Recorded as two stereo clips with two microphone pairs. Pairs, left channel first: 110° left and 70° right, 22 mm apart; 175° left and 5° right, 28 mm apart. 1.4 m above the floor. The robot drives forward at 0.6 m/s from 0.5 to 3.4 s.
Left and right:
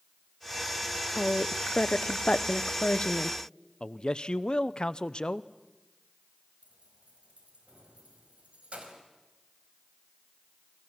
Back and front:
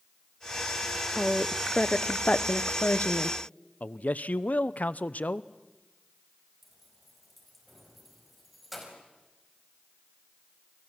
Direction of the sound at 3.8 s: 155° left.